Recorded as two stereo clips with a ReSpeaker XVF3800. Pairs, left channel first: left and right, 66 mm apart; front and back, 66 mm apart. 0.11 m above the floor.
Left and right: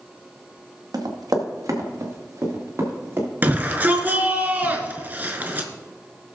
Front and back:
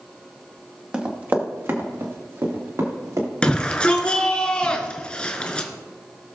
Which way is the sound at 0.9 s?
105° right.